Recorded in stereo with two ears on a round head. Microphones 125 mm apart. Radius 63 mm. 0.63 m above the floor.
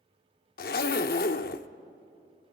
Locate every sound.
0.6 s a zipper: 70° left (ahead or behind), 0.7 m